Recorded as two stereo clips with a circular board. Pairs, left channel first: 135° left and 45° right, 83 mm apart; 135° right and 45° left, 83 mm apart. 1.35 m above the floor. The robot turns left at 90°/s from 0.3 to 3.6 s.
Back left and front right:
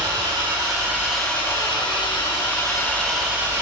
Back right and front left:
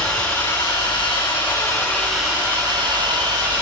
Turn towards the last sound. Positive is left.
turn(degrees=5)